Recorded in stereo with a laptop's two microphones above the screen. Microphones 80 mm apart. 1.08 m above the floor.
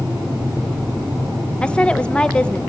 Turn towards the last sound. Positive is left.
turn(degrees=15)  # may be behind; listen again after turning